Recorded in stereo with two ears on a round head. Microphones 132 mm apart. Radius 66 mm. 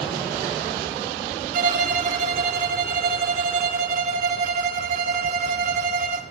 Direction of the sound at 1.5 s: 60° right (ahead or behind).